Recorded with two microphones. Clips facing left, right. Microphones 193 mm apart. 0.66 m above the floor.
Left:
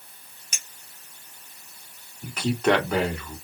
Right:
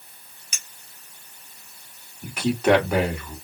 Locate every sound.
0.5 s a clink: 45° left (ahead or behind), 2.5 m
2.2 s a man speaking: 5° right (ahead or behind), 2.0 m